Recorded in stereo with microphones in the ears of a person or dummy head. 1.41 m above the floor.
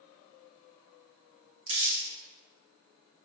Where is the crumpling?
70° right (ahead or behind), 2.5 m.